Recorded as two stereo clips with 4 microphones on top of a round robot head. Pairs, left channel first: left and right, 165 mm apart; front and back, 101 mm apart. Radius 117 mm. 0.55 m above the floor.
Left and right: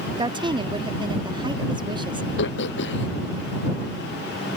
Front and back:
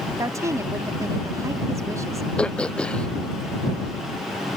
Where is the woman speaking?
140° right.